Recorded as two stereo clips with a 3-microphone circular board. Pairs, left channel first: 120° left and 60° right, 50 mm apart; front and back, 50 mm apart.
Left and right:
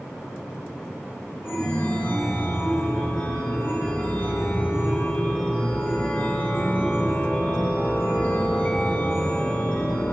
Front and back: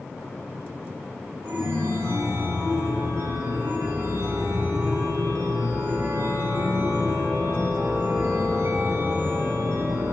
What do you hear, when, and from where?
1.4 s a chime: 165° left, 3 m